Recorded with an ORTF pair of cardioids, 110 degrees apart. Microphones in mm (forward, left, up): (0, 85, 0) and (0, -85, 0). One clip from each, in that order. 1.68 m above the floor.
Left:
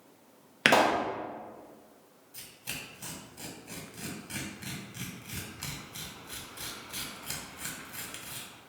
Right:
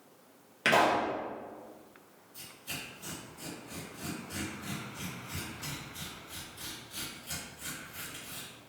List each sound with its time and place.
0.7 s a pop: 45° left, 0.7 m
2.3 s tearing paper: 55° left, 1.4 m